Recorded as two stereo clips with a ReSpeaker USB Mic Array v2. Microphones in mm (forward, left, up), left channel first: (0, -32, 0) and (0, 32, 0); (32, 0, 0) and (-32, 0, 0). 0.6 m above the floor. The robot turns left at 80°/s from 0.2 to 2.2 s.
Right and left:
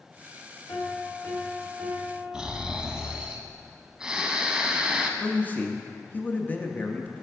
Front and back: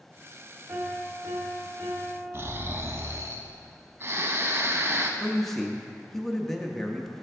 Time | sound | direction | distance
0.7 | a piano | 110° right | 1.1 m
2.3 | snoring | 165° left | 0.5 m
5.2 | a man speaking | 80° right | 0.6 m